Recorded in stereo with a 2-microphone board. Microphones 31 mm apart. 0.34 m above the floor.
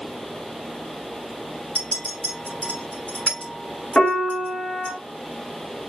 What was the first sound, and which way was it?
A clink, 35° left (ahead or behind).